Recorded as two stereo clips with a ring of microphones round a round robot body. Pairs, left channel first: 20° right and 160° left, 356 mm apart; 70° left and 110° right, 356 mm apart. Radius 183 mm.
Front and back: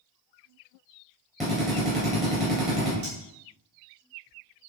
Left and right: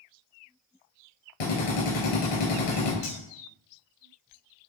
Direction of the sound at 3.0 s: 110° left.